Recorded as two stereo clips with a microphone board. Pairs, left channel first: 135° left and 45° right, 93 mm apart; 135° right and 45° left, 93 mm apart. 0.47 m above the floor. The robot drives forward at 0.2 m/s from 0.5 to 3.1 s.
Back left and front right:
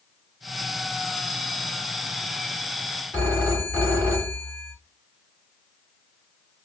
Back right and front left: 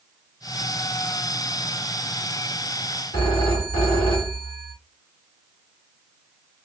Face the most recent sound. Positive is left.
turn(degrees=-155)